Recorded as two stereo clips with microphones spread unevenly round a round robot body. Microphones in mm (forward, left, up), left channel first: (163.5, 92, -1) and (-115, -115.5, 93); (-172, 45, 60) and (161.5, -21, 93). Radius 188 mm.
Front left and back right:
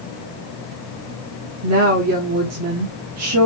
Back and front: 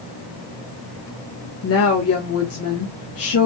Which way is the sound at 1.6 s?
170° left.